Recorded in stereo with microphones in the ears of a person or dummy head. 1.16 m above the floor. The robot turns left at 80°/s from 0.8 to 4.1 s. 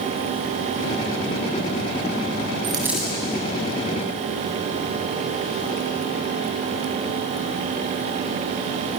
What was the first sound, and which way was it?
A dropped coin, 150° right.